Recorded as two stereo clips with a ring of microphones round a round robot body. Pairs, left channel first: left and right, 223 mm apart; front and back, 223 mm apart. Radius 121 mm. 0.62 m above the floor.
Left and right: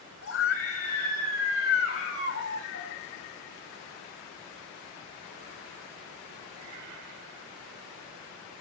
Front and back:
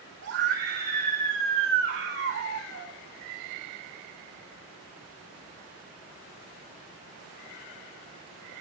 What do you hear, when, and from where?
0.2 s a scream: 130° left, 5 m